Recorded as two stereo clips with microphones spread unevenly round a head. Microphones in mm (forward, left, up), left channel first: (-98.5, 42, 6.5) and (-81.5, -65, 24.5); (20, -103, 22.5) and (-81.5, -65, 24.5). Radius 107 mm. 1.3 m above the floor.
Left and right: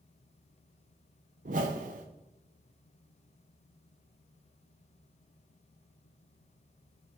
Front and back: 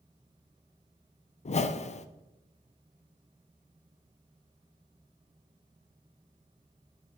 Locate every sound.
1.4 s a whoosh: 45° right, 0.5 m